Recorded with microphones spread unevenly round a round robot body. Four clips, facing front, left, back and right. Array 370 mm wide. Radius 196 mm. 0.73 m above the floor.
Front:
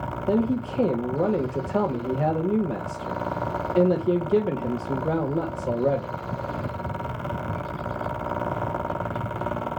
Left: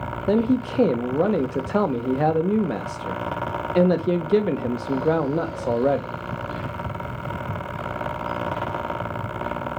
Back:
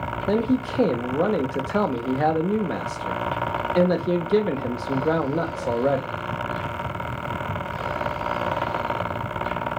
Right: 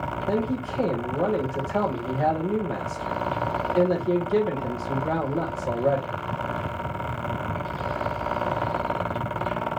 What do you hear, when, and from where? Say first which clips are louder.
0.3 s a man speaking: left 7 dB, back 1 dB; 100° left, 1.1 m